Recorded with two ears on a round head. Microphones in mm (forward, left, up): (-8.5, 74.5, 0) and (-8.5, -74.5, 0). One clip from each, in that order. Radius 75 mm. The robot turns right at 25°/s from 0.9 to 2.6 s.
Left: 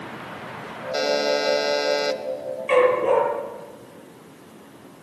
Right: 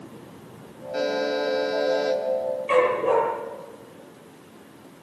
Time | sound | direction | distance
0.9 | a buzzer | 85° left | 1.9 m
2.7 | a dog barking | 15° left (ahead or behind) | 8 m